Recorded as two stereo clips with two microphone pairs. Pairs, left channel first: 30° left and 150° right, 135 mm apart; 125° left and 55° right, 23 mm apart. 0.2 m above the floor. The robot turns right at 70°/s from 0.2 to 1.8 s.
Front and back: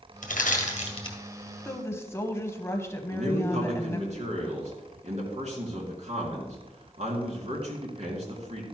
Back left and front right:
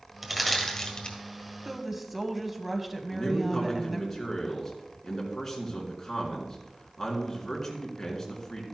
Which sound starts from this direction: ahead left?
Crushing, at 0.2 s.